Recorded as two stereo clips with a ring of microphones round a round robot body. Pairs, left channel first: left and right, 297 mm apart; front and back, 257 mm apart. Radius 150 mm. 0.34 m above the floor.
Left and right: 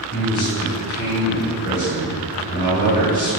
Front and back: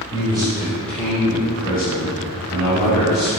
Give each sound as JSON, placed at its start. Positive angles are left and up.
{"t": 0.1, "sound": "a man speaking", "azimuth_deg": 120, "distance_m": 1.9}